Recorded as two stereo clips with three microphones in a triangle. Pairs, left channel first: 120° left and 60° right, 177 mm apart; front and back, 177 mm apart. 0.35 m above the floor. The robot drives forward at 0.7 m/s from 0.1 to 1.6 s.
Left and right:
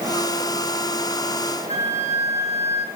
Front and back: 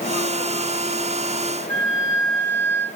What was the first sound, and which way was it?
A flute, 170° left.